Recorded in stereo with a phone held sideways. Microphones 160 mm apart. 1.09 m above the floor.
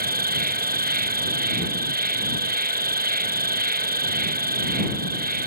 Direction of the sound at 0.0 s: 70° right (ahead or behind).